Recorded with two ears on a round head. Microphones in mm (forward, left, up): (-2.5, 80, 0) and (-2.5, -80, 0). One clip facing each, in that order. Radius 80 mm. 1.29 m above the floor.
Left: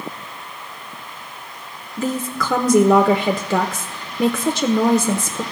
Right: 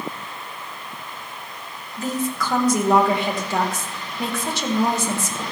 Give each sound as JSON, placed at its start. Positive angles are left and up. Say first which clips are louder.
{"t": 2.0, "sound": "a woman speaking", "louder": "left 2 dB", "side_deg": 60, "distance_m": 0.9}